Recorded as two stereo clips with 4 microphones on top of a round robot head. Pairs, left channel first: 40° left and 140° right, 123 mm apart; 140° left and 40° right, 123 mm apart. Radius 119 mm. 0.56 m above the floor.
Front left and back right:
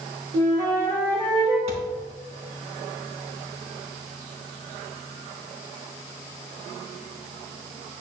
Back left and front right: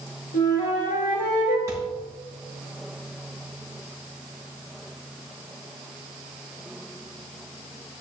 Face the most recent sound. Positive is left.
turn(degrees=-105)